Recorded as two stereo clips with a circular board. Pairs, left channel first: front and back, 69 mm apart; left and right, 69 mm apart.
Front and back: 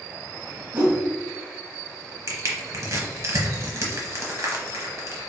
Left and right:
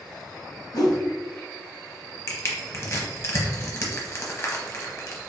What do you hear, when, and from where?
0.7 s a whoosh: 120° left, 0.8 m
2.3 s crushing: 135° left, 0.8 m